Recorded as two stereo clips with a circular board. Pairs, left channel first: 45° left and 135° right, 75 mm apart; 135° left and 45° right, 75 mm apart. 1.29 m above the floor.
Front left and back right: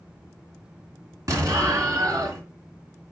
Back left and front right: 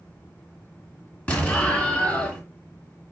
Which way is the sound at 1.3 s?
160° right.